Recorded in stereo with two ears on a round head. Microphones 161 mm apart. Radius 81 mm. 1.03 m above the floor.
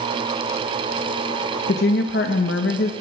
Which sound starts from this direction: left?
A woman speaking, at 1.7 s.